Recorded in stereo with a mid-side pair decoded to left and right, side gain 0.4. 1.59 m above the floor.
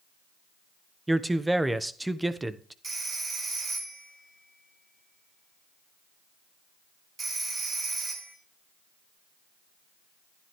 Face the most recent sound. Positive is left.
turn(degrees=-40)